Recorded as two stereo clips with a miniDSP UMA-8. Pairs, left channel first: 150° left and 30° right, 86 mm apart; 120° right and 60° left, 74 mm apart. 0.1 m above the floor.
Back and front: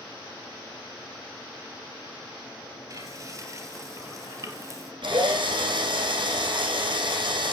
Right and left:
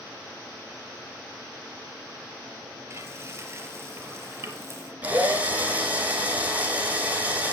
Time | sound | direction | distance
2.9 | frying | 15° left | 2.5 m
5.0 | a drill | 10° right | 5 m